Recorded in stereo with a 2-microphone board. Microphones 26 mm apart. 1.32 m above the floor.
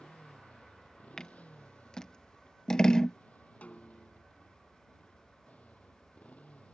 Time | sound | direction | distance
0.0 | a motorcycle | 70° left (ahead or behind) | ?
1.2 | scissors | 30° left (ahead or behind) | ?
3.6 | a snare drum | 65° left (ahead or behind) | ?